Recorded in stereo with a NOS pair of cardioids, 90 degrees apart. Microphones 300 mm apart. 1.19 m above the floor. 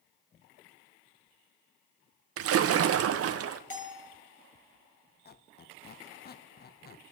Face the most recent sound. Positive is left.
turn(degrees=35)